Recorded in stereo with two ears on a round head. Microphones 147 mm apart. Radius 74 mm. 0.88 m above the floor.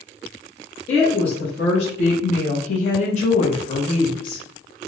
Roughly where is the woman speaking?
Left.